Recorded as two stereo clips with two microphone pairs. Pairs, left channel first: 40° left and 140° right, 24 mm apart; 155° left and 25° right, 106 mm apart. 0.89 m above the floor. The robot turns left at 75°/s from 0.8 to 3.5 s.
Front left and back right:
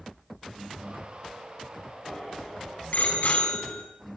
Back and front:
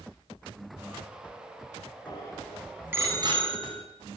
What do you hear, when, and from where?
2.1 s a bicycle bell: 110° left, 6 m; by 3.8 s straight ahead, 6 m